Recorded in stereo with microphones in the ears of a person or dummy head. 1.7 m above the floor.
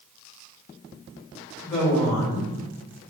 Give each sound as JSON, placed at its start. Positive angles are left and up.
{"t": 1.6, "sound": "a woman speaking", "side_deg": 15, "distance_m": 1.8}